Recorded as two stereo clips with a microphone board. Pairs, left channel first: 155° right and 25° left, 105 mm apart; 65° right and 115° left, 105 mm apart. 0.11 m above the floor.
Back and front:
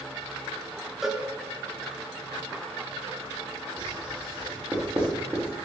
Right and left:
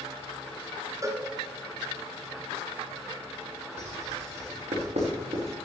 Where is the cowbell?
105° left, 1.7 m.